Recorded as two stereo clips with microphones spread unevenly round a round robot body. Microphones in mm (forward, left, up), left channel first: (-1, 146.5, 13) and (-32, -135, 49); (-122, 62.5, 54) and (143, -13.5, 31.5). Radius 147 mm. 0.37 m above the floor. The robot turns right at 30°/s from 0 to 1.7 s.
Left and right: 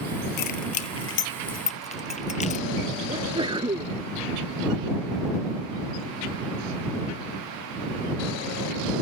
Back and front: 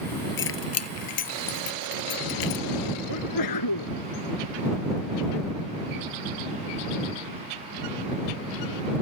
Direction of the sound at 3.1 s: 170° right.